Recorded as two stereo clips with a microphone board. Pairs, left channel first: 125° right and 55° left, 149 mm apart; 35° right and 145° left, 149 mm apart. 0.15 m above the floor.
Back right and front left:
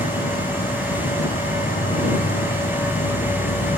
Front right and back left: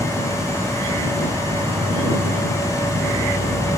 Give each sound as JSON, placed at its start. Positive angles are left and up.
{"t": 0.0, "sound": "an insect", "azimuth_deg": -145}